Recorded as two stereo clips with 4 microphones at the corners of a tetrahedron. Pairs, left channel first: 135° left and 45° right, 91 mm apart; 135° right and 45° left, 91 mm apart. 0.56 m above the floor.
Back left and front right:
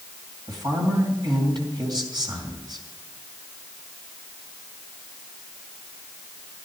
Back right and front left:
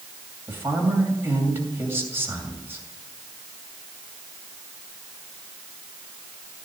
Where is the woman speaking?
15° right, 2.5 m.